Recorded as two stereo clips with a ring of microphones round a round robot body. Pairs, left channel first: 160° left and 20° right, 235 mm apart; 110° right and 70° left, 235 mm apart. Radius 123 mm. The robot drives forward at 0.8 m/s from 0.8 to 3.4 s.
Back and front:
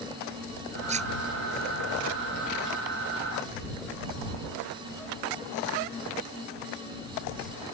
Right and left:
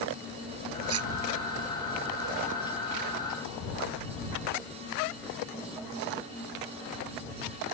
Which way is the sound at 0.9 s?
40° left.